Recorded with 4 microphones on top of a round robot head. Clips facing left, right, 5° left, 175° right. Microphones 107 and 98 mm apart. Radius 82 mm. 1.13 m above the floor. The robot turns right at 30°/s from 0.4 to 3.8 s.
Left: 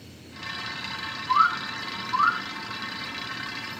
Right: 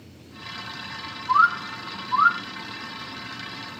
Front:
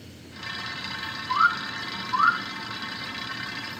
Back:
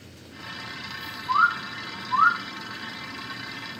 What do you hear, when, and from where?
1.3 s a bird: 145° right, 1.1 m; by 2.4 s 110° right, 1.1 m